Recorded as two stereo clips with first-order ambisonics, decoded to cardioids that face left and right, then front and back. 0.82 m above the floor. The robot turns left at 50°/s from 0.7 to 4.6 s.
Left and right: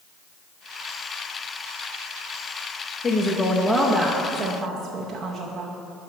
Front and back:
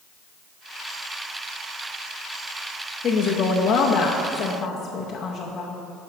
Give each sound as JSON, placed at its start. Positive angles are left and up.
{"t": 3.0, "sound": "a woman speaking", "azimuth_deg": 40, "distance_m": 0.7}